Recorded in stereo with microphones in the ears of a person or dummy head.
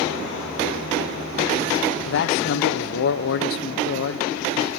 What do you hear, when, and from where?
2.0 s a man speaking: 70° left (ahead or behind), 1.0 m